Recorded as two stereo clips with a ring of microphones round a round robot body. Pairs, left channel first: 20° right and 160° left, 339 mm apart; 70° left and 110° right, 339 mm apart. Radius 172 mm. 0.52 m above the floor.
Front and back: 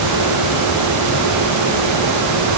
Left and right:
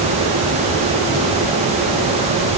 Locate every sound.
Only background noise.